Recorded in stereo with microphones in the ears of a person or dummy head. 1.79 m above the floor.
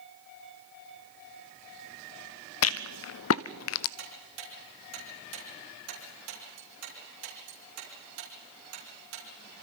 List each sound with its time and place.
2.6 s a rattle: 75° left (ahead or behind), 0.5 m
4.0 s ticking: 80° right, 6 m